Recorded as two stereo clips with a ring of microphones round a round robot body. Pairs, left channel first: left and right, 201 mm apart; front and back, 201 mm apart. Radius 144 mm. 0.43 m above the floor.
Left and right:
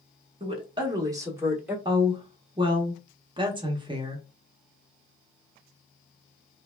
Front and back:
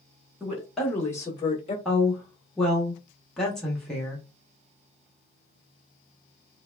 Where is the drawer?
No drawer in this recording.